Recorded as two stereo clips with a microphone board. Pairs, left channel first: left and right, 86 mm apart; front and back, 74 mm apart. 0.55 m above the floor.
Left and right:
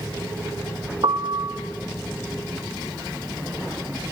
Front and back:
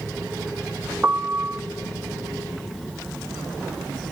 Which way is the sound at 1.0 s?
115° right.